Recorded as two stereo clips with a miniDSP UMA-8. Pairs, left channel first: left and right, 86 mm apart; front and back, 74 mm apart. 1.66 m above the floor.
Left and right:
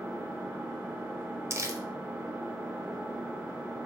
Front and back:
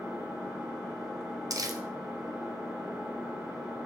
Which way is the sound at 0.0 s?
110° right.